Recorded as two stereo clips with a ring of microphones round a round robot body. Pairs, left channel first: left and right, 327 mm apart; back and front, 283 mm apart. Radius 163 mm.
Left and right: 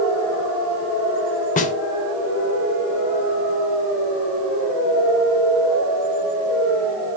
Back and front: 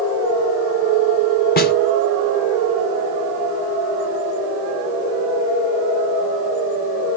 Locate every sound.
1.6 s a snare drum: 145° left, 0.7 m